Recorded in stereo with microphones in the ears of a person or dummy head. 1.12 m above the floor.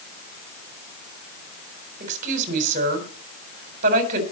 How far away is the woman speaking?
About 4 m.